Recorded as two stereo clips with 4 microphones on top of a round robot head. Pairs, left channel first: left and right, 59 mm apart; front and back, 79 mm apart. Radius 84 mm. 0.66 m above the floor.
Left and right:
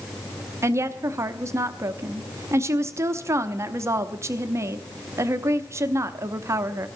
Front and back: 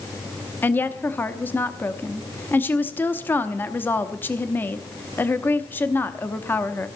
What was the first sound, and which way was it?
A woman speaking, 65° right.